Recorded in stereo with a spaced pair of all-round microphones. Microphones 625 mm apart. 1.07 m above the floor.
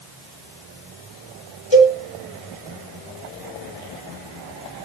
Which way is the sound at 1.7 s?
65° left (ahead or behind).